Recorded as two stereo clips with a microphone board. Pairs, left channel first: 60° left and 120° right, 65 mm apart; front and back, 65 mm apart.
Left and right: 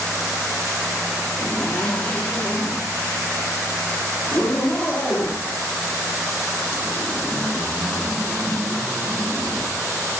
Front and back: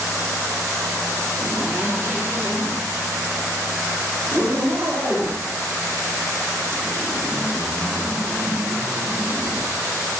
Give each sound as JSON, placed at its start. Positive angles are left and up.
{"t": 1.4, "sound": "a zipper", "azimuth_deg": 130, "distance_m": 2.5}